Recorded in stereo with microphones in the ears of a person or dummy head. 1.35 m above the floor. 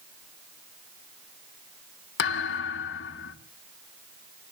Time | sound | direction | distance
2.2 | a thud | 65° left (ahead or behind) | 1.3 m